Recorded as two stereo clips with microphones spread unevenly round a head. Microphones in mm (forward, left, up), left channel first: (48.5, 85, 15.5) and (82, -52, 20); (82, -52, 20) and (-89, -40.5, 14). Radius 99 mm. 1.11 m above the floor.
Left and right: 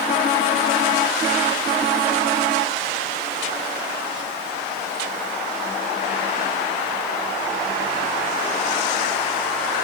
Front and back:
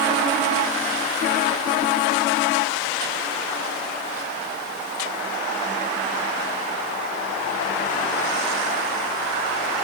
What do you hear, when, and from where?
Only background noise.